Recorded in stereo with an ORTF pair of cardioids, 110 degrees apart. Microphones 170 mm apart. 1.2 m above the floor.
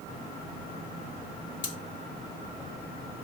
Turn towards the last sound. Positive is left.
turn(degrees=50)